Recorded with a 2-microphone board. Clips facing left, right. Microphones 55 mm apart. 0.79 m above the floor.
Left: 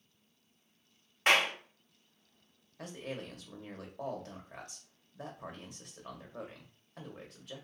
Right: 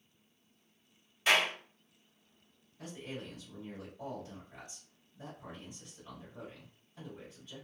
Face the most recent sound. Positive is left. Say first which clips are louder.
# left 2 dB
turn(degrees=65)  # may be behind; listen again after turning